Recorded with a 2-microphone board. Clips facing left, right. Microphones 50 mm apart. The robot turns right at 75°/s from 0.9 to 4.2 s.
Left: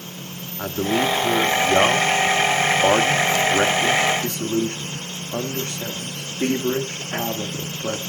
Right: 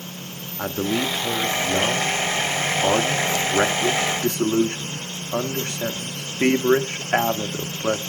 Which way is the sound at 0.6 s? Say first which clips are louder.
Left 2 dB; 15° right.